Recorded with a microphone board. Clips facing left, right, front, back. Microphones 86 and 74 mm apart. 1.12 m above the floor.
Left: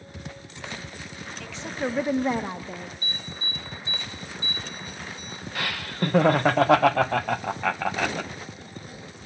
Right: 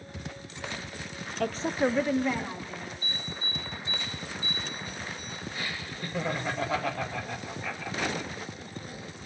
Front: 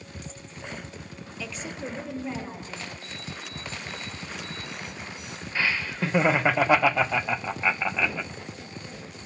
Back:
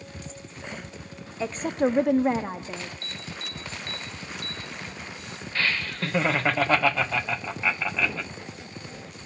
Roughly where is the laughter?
Left.